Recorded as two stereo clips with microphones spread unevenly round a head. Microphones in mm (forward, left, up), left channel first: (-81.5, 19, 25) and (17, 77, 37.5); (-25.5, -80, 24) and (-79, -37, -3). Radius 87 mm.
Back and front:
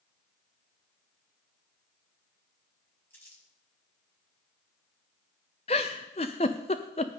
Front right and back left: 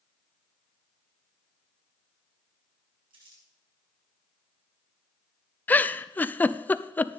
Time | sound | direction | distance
3.1 | crumpling | 135° left | 5 m
5.7 | a giggle | 90° right | 0.5 m